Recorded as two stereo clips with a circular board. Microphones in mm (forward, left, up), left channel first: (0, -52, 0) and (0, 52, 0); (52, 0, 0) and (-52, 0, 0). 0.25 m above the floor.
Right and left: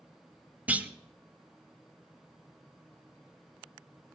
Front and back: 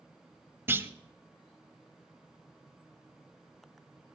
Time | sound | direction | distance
0.7 | a clunk | 145° left | 0.6 m